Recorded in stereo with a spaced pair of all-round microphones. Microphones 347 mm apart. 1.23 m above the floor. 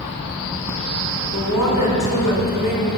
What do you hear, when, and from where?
1.3 s a woman speaking: 60° left (ahead or behind), 5.5 m